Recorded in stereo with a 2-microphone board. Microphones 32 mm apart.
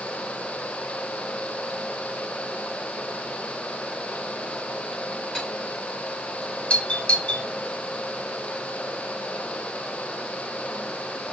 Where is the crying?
I don't hear crying.